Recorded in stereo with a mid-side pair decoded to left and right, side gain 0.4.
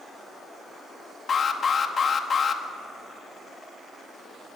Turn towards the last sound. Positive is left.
turn(degrees=50)